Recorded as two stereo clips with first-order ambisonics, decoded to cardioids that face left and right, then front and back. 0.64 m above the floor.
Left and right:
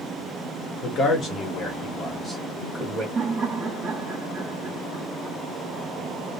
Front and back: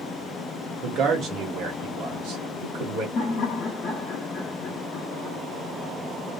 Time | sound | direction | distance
0.8 | a man speaking | 135° left | 1.3 m
3.1 | laughter | 40° right | 0.7 m